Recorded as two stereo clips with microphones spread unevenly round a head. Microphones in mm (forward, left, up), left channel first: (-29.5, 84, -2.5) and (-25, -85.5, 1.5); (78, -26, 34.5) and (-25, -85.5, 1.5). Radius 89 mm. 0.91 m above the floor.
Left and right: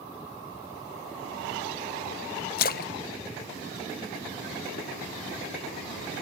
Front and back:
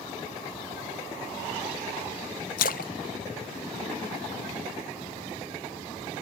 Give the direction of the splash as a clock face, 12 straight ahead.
10 o'clock.